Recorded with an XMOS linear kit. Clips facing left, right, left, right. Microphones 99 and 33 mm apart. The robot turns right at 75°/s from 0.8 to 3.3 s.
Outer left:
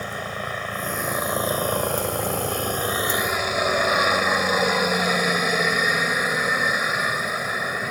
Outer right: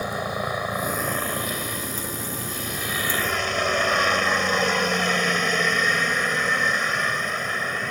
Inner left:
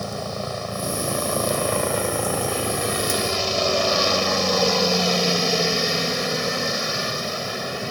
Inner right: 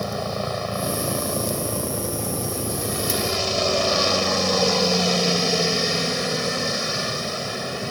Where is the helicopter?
15° right; by 7.9 s 170° left.